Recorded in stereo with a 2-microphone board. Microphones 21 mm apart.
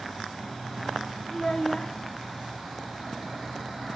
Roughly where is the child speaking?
Left.